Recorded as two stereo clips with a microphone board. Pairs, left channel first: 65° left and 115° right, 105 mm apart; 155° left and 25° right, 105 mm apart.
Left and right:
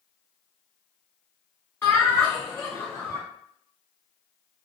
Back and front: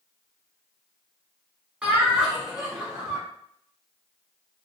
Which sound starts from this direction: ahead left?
Laughter, at 1.8 s.